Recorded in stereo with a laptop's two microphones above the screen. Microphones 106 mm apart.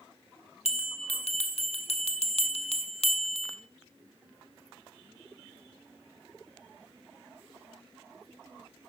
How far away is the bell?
About 1.4 m.